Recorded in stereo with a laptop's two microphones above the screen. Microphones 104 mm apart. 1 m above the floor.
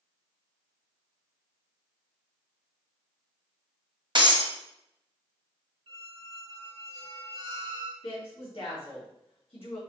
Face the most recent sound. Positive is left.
turn(degrees=60)  # may be behind; listen again after turning